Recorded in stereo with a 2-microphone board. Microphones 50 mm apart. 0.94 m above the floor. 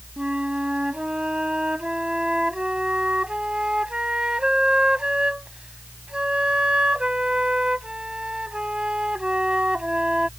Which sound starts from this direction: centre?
A flute, at 0.2 s.